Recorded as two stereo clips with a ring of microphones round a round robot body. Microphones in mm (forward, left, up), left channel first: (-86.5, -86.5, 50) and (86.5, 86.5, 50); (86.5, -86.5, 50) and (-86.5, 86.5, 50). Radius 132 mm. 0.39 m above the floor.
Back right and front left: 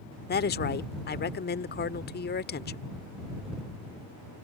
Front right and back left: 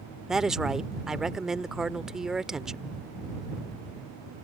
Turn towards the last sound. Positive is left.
turn(degrees=-140)